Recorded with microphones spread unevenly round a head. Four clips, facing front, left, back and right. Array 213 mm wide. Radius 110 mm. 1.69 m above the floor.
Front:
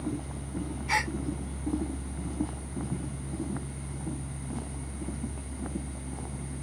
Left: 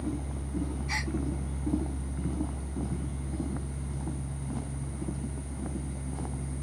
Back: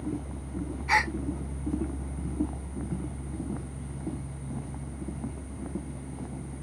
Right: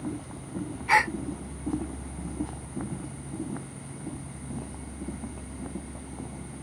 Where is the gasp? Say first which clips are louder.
Right 13 dB, back 4 dB; 95° right.